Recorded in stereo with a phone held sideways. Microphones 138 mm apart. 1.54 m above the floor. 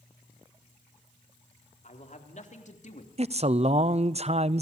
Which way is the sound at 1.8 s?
60° left (ahead or behind).